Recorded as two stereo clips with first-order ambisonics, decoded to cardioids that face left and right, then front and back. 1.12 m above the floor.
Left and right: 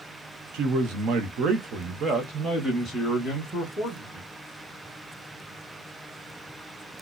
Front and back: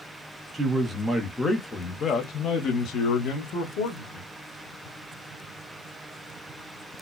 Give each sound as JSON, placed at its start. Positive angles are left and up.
{"t": 0.5, "sound": "a man speaking", "azimuth_deg": -105, "distance_m": 1.1}